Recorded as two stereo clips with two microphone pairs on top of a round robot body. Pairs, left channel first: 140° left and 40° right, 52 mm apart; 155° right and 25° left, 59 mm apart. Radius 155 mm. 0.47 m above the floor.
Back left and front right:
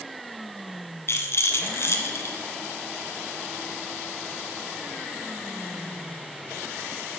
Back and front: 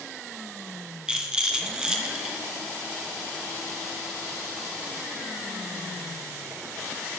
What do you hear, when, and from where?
1.1 s a rattle: 100° left, 2.0 m